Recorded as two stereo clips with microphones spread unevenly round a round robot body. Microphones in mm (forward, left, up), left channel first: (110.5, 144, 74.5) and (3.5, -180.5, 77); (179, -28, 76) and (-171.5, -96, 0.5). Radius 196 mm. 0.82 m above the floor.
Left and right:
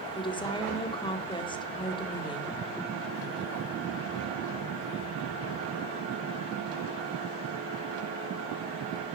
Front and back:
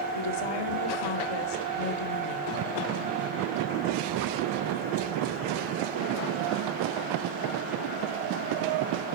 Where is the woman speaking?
5° right, 2 m.